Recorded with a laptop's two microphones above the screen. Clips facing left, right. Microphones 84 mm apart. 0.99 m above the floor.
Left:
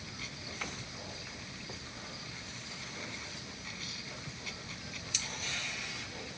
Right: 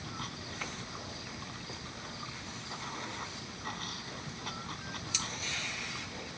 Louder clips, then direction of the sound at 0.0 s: Right 4 dB; 50° right (ahead or behind).